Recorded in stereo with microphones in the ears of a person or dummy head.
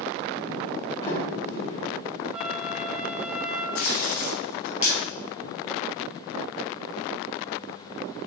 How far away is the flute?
About 2 m.